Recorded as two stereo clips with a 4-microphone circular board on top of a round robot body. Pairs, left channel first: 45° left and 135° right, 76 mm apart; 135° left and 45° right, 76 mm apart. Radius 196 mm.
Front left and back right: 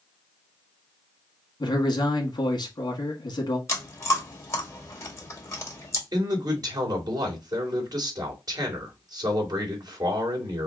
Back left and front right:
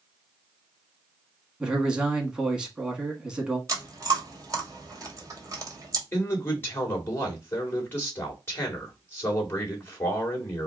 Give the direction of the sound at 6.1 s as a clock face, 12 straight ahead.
5 o'clock.